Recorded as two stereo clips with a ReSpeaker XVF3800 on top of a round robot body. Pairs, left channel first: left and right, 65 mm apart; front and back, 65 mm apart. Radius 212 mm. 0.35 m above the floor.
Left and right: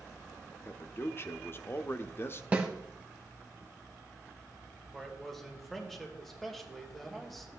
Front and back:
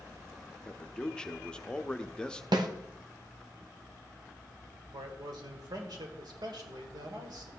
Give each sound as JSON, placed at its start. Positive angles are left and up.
{"t": 0.7, "sound": "a man speaking", "azimuth_deg": 70, "distance_m": 1.0}
{"t": 2.5, "sound": "a snare drum", "azimuth_deg": -160, "distance_m": 0.9}
{"t": 4.9, "sound": "a man speaking", "azimuth_deg": 175, "distance_m": 2.0}